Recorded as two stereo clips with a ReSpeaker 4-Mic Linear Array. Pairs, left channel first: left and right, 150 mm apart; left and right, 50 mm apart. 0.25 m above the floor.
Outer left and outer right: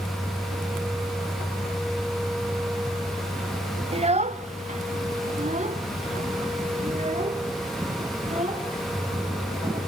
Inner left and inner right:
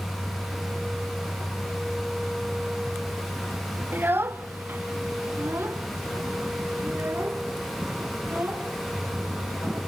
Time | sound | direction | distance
3.9 | a child speaking | 40° right (ahead or behind) | 0.7 m